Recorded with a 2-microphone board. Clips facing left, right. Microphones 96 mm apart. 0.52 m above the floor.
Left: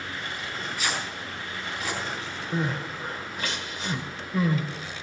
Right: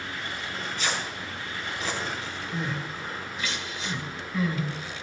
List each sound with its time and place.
0.4 s tearing paper: 5° left (ahead or behind), 5 m
2.5 s crying: 55° left (ahead or behind), 1.9 m